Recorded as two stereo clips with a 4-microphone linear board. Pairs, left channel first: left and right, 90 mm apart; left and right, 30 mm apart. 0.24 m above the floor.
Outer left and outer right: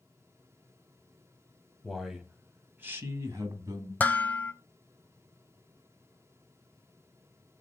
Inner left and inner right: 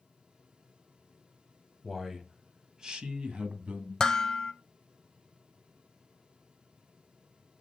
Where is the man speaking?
Centre (ahead or behind), 1.2 m; by 3.9 s 45° right (ahead or behind), 1.6 m.